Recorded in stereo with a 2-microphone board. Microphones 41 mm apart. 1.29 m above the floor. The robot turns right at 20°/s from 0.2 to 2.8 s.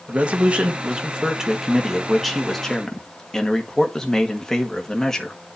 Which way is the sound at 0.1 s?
40° right.